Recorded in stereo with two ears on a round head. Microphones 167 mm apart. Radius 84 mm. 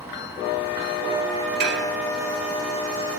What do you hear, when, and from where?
1.6 s dishes clattering: 65° right (ahead or behind), 1.4 m